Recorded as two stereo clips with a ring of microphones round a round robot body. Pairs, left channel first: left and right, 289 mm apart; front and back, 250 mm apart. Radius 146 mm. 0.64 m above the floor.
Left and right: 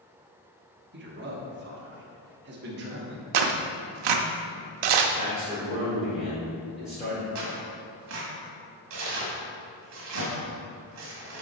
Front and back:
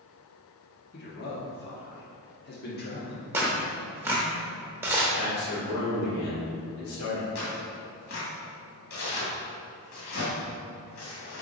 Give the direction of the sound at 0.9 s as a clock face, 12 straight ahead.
1 o'clock.